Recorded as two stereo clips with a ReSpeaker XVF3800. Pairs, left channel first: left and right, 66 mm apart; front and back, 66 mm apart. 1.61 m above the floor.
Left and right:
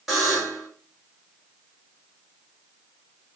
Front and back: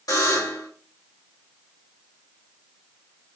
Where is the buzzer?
5° right, 2 m.